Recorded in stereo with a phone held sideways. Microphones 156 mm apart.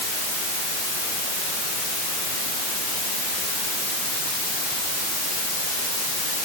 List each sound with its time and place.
Only background noise.